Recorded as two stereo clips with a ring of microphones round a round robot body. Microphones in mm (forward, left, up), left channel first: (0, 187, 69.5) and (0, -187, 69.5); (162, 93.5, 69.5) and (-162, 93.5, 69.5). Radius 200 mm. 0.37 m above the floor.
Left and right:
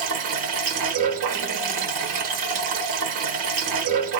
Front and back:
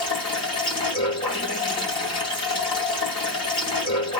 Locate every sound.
0.0 s running water: 75° right, 1.2 m